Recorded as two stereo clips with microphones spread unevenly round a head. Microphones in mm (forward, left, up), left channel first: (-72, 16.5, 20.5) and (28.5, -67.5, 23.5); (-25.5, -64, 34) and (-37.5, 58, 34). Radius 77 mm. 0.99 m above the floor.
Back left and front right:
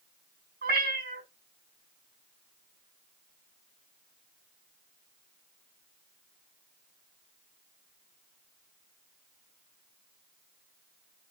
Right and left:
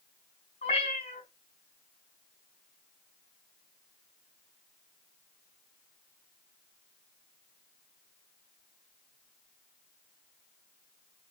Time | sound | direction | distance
0.6 | a cat meowing | 30° right | 4 m